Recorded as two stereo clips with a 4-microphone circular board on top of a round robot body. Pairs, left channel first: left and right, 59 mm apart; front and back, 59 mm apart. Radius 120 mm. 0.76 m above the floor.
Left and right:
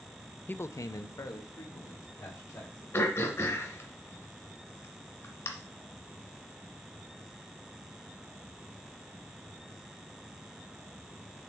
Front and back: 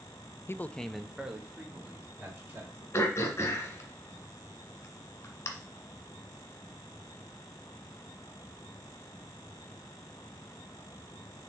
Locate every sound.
0.5 s a man speaking: 35° left, 0.6 m; by 2.8 s 120° left, 2.5 m
2.9 s throat clearing: 45° left, 1.8 m